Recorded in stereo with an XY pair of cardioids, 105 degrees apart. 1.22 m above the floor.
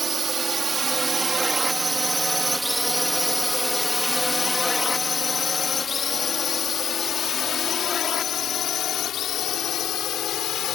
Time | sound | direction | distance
0.0 | a drone | 35° right | ?